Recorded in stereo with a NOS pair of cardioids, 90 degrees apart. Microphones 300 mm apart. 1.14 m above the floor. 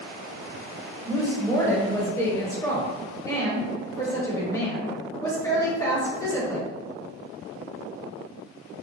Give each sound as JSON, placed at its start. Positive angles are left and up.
{"t": 1.1, "sound": "a woman speaking", "azimuth_deg": 10, "distance_m": 1.3}